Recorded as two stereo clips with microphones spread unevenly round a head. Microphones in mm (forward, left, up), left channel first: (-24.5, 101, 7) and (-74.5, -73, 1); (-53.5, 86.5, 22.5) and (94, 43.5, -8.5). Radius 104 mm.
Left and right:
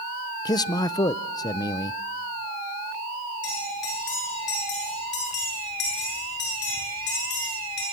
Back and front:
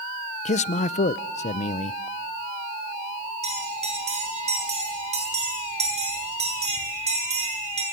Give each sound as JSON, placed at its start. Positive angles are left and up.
{"t": 0.5, "sound": "a man speaking", "azimuth_deg": 135, "distance_m": 0.6}
{"t": 3.4, "sound": "a bell", "azimuth_deg": 30, "distance_m": 8.5}